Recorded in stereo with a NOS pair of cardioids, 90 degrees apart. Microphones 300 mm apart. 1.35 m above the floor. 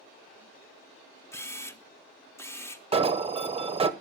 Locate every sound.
1.3 s a camera shutter: 10° left, 0.7 m
2.9 s an alarm: 20° right, 0.8 m